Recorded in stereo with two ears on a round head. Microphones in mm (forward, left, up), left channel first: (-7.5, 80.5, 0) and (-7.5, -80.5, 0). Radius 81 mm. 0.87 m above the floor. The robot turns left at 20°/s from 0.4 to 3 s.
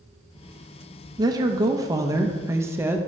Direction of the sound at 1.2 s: 20° right (ahead or behind).